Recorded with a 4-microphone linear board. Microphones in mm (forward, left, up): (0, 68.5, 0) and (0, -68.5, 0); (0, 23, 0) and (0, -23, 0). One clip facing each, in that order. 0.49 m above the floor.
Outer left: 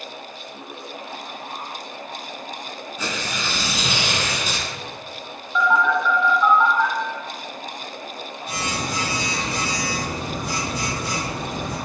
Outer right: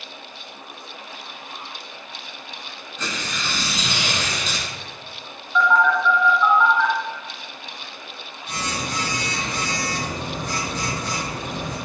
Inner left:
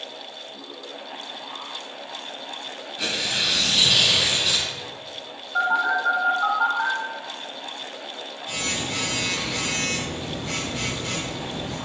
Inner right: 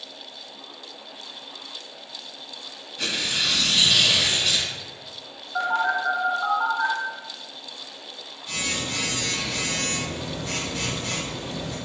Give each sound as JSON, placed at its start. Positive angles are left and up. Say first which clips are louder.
{"t": 3.0, "sound": "tearing paper", "louder": "outer left 1 dB, even", "side_deg": 10, "distance_m": 1.1}
{"t": 5.5, "sound": "a phone buzzing", "louder": "outer right 1 dB, inner left 2 dB", "side_deg": 10, "distance_m": 0.8}